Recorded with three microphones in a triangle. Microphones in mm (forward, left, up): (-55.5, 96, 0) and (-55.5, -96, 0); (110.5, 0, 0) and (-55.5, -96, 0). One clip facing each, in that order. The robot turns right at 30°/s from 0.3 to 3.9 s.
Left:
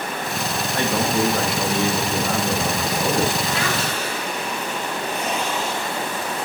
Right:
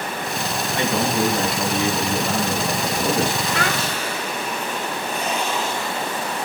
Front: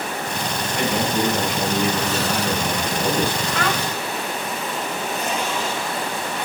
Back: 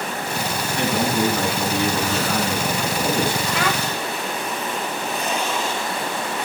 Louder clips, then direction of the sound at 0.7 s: Even, back 1 dB; 5° left.